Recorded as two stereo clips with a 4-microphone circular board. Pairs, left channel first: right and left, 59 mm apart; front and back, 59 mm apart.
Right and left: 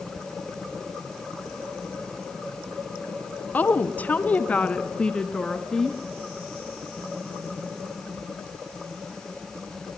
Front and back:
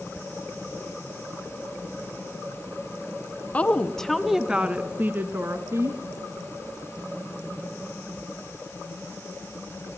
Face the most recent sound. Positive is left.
turn(degrees=-175)